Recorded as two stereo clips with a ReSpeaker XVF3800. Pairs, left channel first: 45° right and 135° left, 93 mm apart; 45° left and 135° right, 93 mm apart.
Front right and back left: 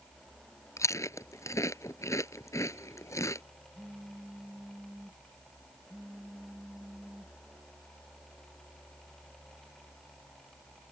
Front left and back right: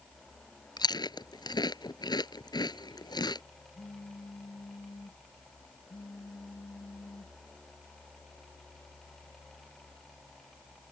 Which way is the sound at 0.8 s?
10° left.